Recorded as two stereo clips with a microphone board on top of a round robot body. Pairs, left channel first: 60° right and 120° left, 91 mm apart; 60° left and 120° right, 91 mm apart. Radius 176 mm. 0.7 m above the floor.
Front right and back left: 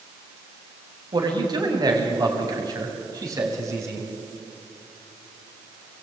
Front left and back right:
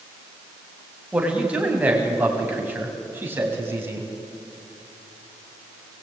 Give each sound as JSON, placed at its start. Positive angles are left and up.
{"t": 1.1, "sound": "a man speaking", "azimuth_deg": 160, "distance_m": 6.0}